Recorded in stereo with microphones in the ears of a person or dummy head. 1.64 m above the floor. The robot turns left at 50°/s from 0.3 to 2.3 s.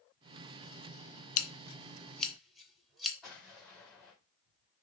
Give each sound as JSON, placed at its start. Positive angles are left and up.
{"t": 1.4, "sound": "scissors", "side_deg": 45, "distance_m": 0.6}
{"t": 3.2, "sound": "an explosion", "side_deg": -5, "distance_m": 1.9}